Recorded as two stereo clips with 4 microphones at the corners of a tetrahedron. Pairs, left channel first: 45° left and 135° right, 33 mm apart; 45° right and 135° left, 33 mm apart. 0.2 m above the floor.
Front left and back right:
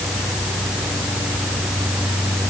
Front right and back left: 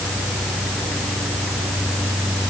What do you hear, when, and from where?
Only background noise.